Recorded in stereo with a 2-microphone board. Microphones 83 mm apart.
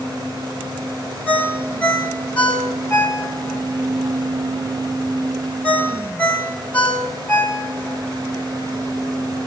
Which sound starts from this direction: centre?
A ringtone, at 1.3 s.